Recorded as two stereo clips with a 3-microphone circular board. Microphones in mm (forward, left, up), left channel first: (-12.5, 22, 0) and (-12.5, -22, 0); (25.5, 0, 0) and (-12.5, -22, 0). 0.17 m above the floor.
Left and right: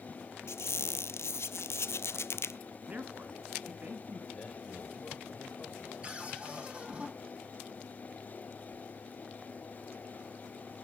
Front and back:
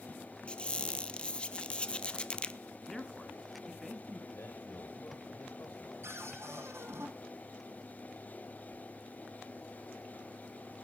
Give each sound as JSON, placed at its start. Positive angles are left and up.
{"t": 0.5, "sound": "a squeak", "azimuth_deg": 95, "distance_m": 0.9}
{"t": 2.9, "sound": "a man speaking", "azimuth_deg": -50, "distance_m": 2.5}
{"t": 4.3, "sound": "a man speaking", "azimuth_deg": 25, "distance_m": 6.5}
{"t": 6.0, "sound": "a cupboard door", "azimuth_deg": -150, "distance_m": 7.0}